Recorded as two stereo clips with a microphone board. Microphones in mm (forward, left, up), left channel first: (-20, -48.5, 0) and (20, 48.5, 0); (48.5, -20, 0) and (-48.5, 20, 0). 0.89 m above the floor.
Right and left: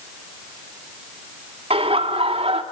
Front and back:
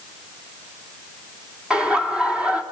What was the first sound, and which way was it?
Laughter, 75° left.